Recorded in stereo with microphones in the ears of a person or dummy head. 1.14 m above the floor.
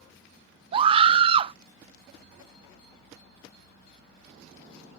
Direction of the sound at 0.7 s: 30° right (ahead or behind).